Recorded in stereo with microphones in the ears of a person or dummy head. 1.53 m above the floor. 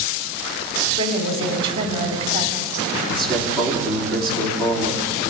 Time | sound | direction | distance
1.0 | a woman speaking | 25° right (ahead or behind) | 4 m
3.1 | a man speaking | 5° left (ahead or behind) | 4 m